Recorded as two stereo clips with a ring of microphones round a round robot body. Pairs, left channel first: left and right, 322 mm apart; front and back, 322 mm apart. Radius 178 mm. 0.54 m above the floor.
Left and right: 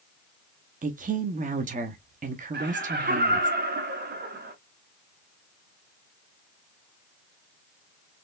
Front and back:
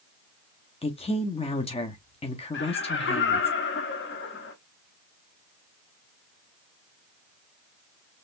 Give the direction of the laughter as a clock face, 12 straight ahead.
1 o'clock.